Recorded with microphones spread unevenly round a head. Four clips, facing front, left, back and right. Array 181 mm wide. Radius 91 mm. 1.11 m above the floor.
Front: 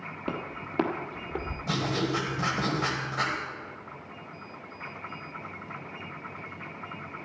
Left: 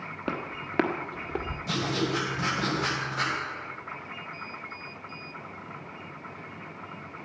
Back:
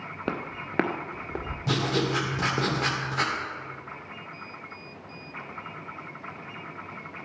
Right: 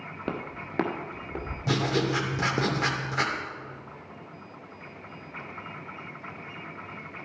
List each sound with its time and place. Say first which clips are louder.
0.3 s footsteps: left 1 dB, back 2 dB; 165° left, 1.4 m; by 1.6 s 125° left, 1.4 m
1.7 s writing: right 3 dB, back 3 dB; 130° right, 2.5 m